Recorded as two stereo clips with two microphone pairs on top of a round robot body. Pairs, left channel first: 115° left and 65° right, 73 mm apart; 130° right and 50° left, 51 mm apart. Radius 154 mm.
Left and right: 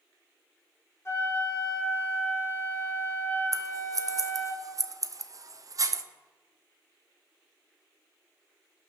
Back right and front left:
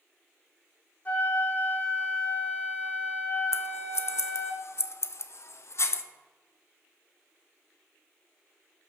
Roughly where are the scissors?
Right.